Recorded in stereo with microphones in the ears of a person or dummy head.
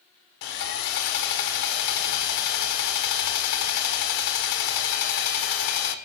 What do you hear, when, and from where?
0.4 s sawing: 65° left (ahead or behind), 1.6 m